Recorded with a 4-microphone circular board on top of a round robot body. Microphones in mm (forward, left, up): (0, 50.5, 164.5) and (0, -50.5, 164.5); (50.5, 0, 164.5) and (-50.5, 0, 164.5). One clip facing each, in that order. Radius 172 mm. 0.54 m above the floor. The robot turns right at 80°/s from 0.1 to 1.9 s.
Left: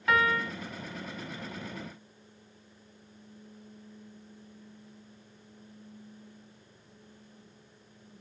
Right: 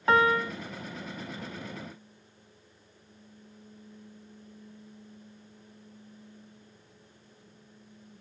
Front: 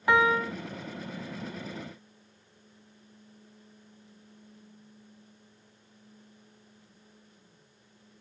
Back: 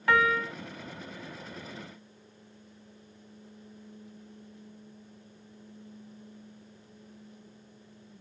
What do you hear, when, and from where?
0.1 s a piano: 60° right, 0.5 m; by 0.5 s 25° right, 0.5 m